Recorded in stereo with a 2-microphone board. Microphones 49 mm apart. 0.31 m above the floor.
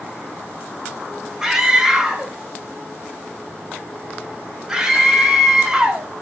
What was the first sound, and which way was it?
A scream, 15° right (ahead or behind).